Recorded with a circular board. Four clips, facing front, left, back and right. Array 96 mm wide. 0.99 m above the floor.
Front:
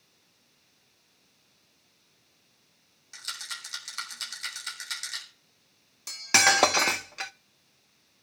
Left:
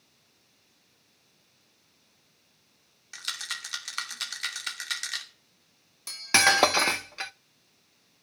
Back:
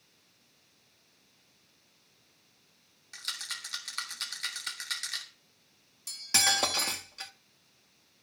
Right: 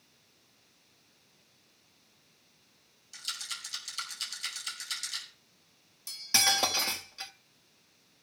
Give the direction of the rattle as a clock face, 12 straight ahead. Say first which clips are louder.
Left 6 dB, front 2 dB; 9 o'clock.